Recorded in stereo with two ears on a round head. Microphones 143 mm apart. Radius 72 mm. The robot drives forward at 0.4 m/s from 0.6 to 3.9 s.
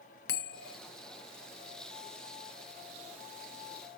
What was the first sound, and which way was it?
A bell, 75° left (ahead or behind).